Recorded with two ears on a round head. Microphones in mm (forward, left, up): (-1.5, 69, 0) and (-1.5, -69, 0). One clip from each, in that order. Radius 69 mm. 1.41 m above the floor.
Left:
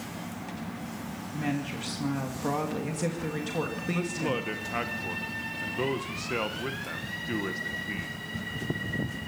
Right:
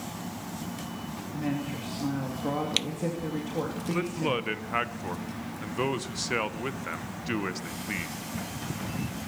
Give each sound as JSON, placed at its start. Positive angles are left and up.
{"t": 1.3, "sound": "a woman speaking", "side_deg": 85, "distance_m": 2.5}
{"t": 3.9, "sound": "a man speaking", "side_deg": -40, "distance_m": 1.1}